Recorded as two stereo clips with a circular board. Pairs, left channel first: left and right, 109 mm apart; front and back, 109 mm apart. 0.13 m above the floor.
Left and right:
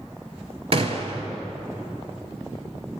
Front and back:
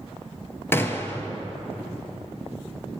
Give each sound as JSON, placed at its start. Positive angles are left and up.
{"t": 0.7, "sound": "a gunshot", "azimuth_deg": -65, "distance_m": 0.6}